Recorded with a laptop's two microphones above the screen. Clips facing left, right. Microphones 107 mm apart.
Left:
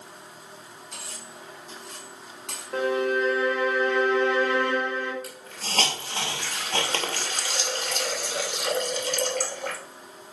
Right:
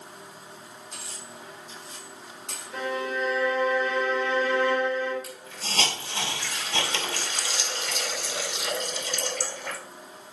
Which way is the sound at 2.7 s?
60° left (ahead or behind).